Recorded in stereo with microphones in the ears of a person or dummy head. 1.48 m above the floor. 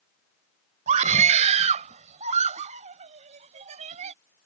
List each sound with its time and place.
0.9 s a scream: 40° right (ahead or behind)